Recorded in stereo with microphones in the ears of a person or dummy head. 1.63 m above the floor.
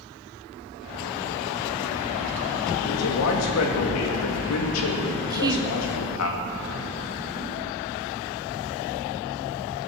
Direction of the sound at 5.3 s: 25° right (ahead or behind).